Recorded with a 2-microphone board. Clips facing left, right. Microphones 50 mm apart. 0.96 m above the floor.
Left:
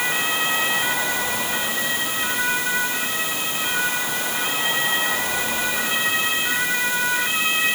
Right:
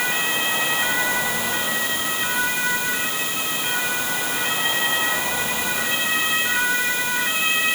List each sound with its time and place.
Only background noise.